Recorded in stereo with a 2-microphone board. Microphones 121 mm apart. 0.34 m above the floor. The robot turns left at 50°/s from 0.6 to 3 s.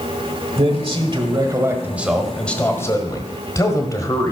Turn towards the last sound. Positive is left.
turn(degrees=140)